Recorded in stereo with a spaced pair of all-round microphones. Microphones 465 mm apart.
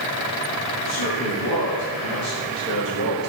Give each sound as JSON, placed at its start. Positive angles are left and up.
{"t": 0.8, "sound": "a man speaking", "side_deg": 45, "distance_m": 4.5}